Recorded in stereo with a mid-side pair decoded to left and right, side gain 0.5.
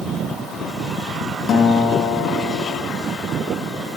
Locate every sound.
1.5 s a guitar: 55° left, 1.6 m